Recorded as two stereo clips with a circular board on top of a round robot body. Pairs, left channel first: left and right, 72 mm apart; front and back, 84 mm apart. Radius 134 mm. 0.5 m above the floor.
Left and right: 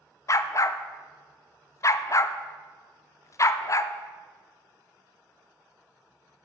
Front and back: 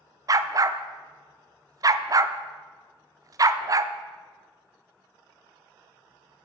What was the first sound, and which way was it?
A dog barking, 135° left.